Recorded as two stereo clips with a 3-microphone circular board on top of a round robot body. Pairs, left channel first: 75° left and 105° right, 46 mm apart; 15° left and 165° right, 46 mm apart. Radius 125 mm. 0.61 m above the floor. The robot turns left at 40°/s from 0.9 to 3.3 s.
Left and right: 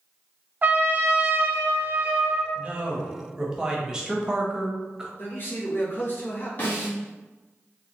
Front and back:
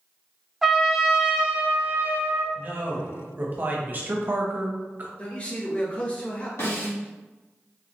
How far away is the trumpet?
About 0.9 m.